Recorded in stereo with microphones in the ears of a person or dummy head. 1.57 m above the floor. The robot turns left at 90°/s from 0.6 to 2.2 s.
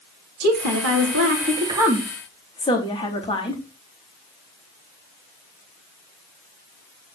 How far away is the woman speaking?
About 4 m.